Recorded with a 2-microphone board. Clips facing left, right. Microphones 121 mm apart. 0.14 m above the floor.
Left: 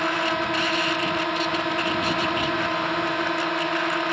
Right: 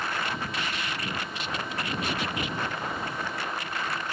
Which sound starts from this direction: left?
A drone, at 0.0 s.